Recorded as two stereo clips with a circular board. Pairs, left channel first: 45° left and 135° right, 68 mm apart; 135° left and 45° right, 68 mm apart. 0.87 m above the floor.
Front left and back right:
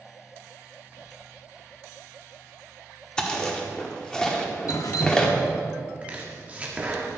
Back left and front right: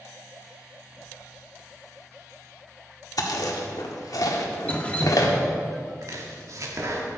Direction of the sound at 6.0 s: 70° right.